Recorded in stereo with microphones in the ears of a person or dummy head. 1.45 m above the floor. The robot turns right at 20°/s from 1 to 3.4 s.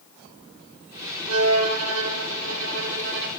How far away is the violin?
About 0.7 m.